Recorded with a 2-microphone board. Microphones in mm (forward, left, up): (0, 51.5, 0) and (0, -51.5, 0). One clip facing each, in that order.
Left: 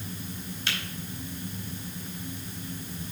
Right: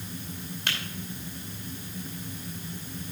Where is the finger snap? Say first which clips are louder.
Right 1 dB; 60° right (ahead or behind), 2.5 m.